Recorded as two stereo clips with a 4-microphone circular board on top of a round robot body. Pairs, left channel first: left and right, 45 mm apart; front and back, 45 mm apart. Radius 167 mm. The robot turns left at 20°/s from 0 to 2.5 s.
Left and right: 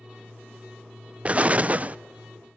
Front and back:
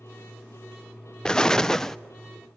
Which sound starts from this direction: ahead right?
An explosion, at 1.2 s.